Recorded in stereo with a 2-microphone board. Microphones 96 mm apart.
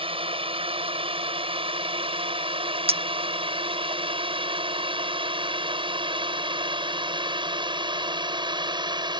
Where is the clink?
85° right.